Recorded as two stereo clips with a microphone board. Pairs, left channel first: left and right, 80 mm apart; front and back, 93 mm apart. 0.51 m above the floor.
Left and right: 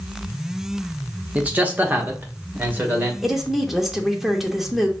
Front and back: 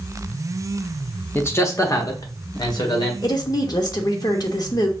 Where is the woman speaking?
5° right, 0.9 m.